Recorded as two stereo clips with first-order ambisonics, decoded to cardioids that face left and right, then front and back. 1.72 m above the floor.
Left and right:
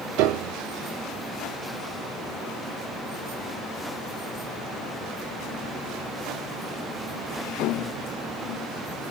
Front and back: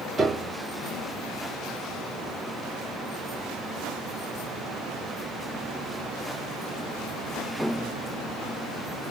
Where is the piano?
105° right, 0.6 m.